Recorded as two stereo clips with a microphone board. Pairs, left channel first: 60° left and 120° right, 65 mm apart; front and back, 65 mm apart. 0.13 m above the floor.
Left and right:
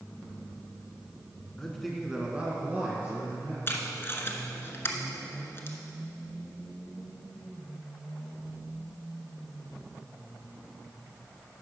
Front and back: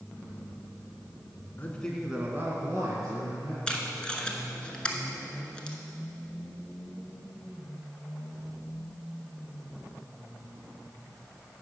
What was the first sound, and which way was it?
A man speaking, 15° right.